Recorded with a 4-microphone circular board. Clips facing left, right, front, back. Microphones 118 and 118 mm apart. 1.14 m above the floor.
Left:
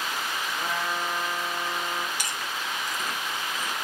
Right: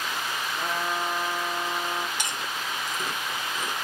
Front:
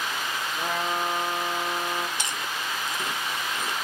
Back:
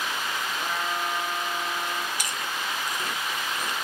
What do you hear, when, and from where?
0.6 s a trumpet: 15° right, 0.5 m
2.2 s chewing: 45° right, 0.7 m